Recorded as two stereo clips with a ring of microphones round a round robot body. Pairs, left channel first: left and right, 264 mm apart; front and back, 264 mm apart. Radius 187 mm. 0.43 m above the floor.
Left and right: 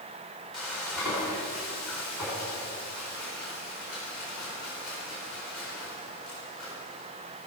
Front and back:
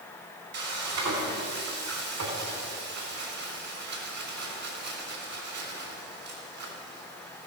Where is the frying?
Straight behind, 3.5 m.